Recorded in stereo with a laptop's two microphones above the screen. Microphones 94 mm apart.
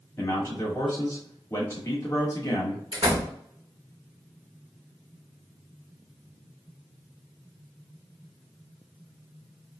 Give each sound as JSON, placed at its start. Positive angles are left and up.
{"t": 0.2, "sound": "a man speaking", "side_deg": 30, "distance_m": 0.9}
{"t": 2.9, "sound": "a door slam", "side_deg": -70, "distance_m": 1.3}